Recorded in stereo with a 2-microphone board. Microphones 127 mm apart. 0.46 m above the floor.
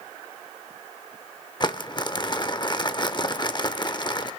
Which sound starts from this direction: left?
Crumpling, at 1.6 s.